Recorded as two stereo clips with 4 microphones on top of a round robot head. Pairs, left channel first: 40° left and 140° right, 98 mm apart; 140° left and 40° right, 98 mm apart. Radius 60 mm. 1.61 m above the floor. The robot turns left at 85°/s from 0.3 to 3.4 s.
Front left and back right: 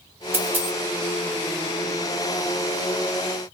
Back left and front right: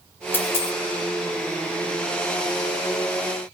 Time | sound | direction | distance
0.3 | a dropped coin | 175° right | 0.9 m